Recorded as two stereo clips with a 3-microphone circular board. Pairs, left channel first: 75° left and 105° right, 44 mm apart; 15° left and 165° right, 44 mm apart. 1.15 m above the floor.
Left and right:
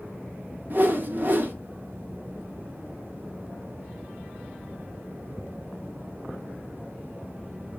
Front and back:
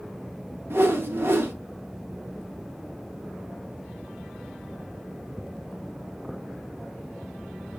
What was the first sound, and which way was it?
A whoosh, 145° right.